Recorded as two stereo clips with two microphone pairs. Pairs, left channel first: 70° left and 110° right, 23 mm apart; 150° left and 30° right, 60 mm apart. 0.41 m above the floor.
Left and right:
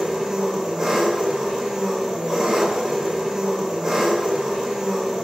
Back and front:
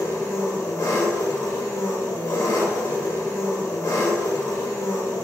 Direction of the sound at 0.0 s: 175° left.